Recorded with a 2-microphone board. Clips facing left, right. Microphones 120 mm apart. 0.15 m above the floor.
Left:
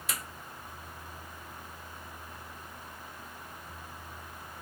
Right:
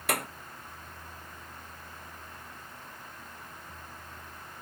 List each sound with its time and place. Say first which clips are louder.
0.1 s a clap: right 10 dB; 60° right (ahead or behind)